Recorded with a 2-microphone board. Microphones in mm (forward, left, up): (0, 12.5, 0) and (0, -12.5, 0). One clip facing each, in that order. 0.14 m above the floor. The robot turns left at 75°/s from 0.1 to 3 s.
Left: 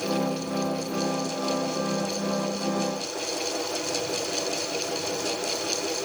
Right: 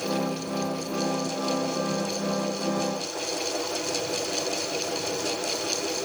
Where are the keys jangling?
No keys jangling in this recording.